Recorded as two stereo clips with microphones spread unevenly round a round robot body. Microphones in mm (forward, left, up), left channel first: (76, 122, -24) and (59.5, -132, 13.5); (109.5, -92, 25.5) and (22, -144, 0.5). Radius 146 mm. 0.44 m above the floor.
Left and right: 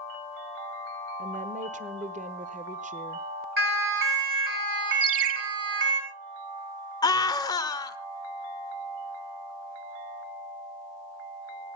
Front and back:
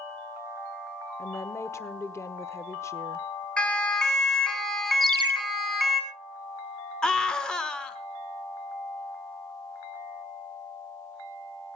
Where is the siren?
50° right, 6.5 m; by 6.0 s 65° right, 5.5 m.